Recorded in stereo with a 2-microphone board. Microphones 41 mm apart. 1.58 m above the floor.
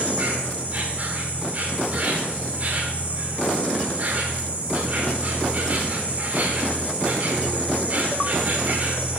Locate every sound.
0.0 s an insect: 40° right (ahead or behind), 1.5 m